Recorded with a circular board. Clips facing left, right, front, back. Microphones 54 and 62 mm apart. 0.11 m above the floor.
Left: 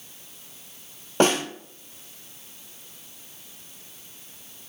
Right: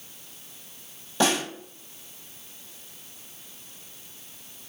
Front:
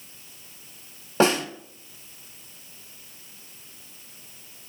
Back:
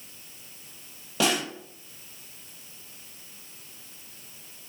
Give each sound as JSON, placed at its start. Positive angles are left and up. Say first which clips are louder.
{"t": 1.2, "sound": "a snare drum", "louder": "left 3 dB, front 5 dB", "azimuth_deg": 55, "distance_m": 1.4}